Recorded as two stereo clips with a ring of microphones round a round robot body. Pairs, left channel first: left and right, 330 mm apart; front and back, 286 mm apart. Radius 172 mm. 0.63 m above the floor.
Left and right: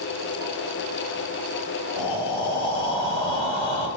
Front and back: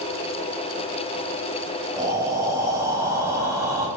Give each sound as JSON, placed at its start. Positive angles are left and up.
{"t": 2.0, "sound": "breathing", "azimuth_deg": 100, "distance_m": 2.5}